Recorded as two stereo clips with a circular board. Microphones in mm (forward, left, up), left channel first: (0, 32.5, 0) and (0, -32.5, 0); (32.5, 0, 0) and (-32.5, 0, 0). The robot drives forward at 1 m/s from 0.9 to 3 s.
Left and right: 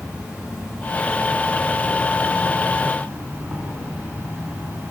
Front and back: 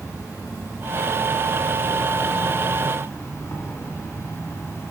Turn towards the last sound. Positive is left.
turn(degrees=-40)